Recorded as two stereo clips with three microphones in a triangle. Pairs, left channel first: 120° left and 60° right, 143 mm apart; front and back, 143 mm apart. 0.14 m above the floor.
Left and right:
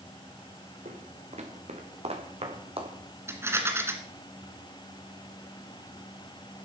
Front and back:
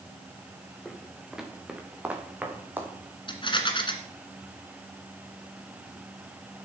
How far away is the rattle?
About 1.8 m.